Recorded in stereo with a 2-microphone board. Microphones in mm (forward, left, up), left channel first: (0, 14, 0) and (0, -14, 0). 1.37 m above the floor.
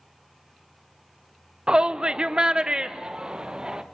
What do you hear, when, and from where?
1.7 s a shout: 30° right (ahead or behind), 0.7 m